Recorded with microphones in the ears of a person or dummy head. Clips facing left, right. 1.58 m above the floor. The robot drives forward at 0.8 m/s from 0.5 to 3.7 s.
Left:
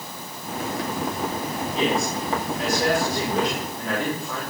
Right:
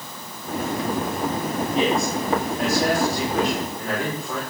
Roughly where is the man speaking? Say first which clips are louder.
Right 1 dB; right.